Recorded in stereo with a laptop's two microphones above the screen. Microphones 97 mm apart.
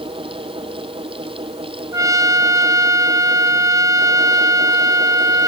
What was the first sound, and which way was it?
A fan, 65° right (ahead or behind).